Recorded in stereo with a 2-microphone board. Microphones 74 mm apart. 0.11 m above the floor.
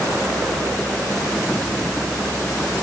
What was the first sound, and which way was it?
Only background noise.